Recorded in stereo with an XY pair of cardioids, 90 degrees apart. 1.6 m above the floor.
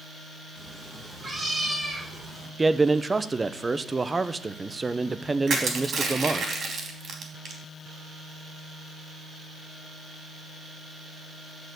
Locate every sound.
0.6 s a cat meowing: 25° right, 5.5 m; by 2.5 s 35° right, 4.5 m
2.6 s a man speaking: 25° right, 0.8 m
5.5 s crushing: 60° right, 3.5 m